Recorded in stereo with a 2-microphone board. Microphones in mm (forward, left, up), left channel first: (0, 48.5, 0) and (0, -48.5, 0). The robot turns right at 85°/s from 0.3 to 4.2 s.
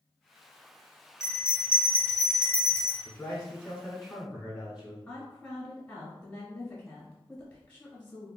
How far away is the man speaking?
About 1.2 m.